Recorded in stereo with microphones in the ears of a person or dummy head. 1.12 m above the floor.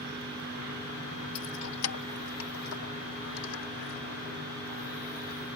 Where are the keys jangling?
85° left; by 4.0 s 80° left.